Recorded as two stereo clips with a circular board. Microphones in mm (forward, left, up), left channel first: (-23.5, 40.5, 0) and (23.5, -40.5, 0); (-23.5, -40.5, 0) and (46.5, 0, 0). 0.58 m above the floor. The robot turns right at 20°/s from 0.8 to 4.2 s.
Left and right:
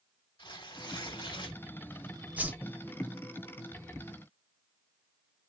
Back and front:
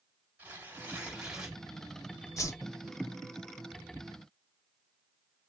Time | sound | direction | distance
0.4 | tearing paper | 100° left | 2.5 m
2.4 | a whoosh | 125° right | 1.2 m